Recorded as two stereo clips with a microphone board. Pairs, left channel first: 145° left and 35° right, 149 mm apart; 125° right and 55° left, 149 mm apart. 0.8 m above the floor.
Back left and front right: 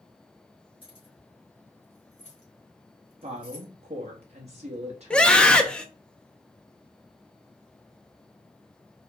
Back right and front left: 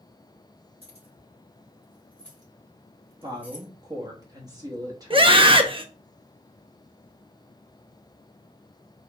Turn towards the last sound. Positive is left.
turn(degrees=65)